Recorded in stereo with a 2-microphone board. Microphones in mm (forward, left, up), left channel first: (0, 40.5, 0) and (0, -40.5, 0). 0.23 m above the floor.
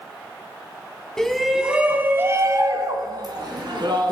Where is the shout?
5° left (ahead or behind), 1.5 m; by 4.1 s 70° right (ahead or behind), 2.5 m.